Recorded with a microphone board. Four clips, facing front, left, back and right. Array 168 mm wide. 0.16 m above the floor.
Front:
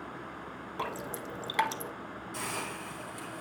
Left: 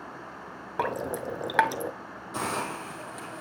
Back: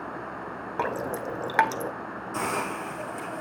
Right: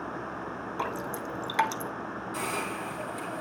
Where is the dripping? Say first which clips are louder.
Left 5 dB, back 8 dB; 135° left, 0.9 m.